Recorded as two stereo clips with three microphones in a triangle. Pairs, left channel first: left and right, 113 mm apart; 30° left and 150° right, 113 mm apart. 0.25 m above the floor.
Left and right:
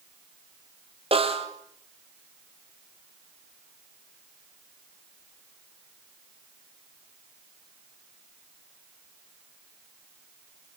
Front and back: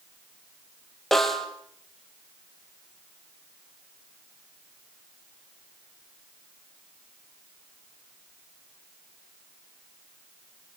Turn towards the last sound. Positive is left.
turn(degrees=-60)